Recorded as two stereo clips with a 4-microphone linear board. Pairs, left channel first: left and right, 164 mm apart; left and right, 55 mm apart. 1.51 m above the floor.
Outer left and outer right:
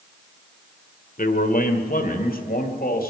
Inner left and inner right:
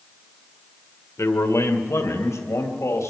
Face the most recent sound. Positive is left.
turn(degrees=70)  # may be behind; listen again after turning